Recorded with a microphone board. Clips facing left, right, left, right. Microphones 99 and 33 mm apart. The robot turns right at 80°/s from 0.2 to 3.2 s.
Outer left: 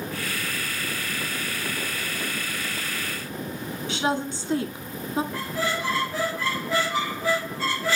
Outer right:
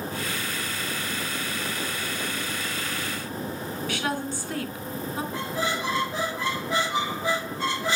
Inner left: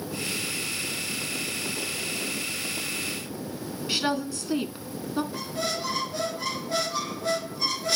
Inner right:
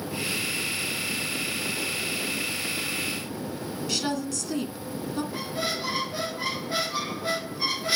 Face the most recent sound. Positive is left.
turn(degrees=-20)  # may be behind; listen again after turning